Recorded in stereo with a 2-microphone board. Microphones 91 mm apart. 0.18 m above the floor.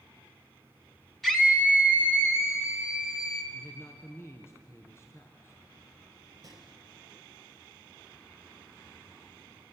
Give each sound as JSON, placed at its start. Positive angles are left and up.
{"t": 1.2, "sound": "a scream", "side_deg": 5, "distance_m": 2.0}
{"t": 3.5, "sound": "a man speaking", "side_deg": 30, "distance_m": 1.9}
{"t": 6.4, "sound": "a gunshot", "side_deg": -40, "distance_m": 3.5}